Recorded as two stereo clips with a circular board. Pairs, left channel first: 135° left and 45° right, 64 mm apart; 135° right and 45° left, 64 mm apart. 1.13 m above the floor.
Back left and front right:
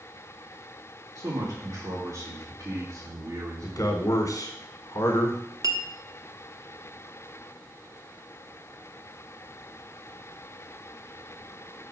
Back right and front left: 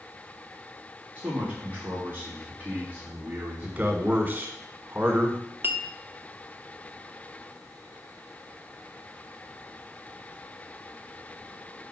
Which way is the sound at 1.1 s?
15° right.